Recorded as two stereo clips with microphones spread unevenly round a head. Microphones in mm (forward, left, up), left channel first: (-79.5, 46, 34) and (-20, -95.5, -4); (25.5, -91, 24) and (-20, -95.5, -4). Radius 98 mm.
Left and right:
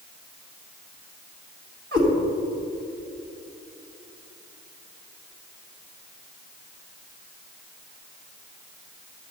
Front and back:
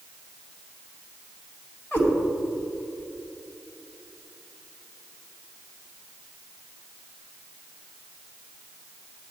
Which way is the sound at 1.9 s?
20° right.